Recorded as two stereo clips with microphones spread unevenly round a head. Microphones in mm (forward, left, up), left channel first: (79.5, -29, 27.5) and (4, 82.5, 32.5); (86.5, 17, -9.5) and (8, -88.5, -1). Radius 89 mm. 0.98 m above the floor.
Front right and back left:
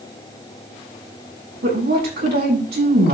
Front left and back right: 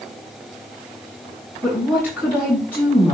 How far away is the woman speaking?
About 8 m.